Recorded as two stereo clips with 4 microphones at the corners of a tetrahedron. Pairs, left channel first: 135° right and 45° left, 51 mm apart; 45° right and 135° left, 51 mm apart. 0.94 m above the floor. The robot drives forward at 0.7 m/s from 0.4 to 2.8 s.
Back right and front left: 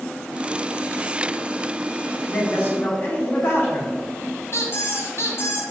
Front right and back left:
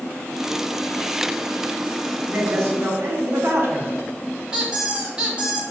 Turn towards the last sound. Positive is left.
turn(degrees=-155)